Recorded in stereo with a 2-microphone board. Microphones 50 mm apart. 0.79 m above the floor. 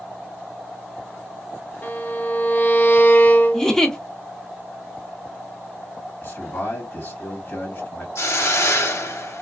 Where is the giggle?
10° left (ahead or behind), 0.6 m.